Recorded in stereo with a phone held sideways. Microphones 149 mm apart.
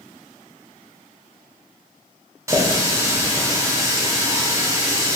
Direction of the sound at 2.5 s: 20° right (ahead or behind).